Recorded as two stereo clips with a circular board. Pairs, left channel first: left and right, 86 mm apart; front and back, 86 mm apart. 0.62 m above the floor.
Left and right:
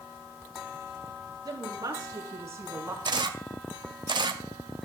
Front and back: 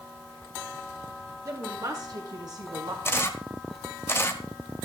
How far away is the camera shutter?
About 1.4 m.